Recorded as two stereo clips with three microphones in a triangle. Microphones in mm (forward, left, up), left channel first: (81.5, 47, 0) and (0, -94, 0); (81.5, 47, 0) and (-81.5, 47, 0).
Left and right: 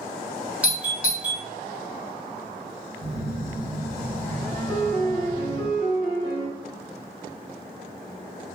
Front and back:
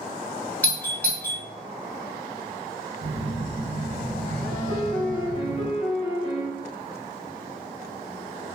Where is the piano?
30° left, 1.3 m.